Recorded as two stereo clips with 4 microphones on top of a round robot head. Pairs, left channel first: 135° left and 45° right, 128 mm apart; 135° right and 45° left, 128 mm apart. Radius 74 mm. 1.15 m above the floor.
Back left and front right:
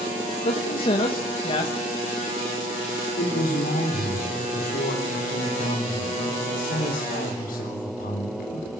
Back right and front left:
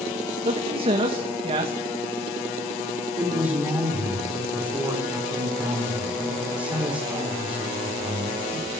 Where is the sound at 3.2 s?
125° left, 4 m.